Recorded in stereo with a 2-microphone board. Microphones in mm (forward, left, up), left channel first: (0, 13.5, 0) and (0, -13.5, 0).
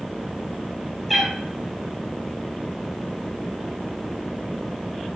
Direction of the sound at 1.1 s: Centre (ahead or behind).